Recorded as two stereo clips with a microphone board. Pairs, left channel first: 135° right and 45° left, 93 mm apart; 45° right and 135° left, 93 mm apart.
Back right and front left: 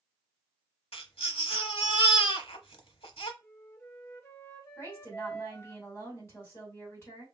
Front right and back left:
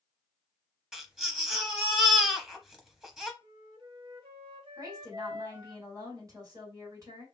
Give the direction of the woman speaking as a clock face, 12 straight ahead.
6 o'clock.